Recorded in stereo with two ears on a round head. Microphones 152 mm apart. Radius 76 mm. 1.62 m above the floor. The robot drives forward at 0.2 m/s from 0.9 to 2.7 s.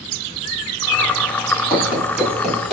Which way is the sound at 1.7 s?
15° right (ahead or behind).